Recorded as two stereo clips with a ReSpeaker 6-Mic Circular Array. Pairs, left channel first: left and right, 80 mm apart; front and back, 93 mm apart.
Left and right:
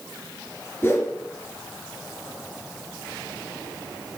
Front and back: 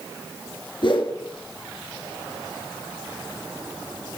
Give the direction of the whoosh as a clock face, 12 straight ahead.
11 o'clock.